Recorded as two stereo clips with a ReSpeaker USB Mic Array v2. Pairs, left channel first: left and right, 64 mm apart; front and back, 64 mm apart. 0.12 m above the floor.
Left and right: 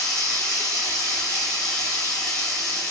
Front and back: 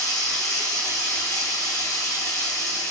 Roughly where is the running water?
Ahead.